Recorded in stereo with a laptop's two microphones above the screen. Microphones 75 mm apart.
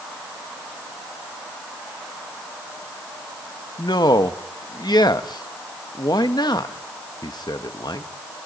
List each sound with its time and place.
3.8 s a man speaking: 70° left (ahead or behind), 0.9 m